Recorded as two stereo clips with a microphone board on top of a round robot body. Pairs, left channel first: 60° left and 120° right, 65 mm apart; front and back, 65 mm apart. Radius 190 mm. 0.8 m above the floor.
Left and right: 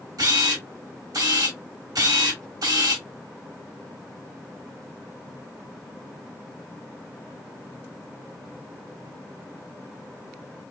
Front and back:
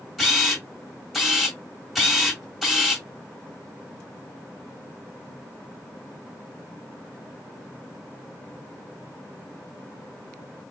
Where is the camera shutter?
90° right, 1.3 m.